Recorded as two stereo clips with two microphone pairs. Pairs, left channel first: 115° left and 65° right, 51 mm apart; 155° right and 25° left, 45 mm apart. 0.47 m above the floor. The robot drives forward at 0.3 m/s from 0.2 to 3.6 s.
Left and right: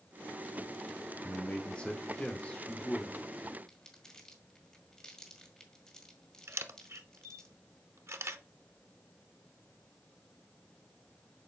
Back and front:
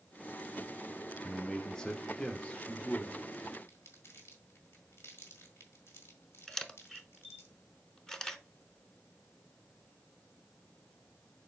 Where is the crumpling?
170° right, 1.8 m.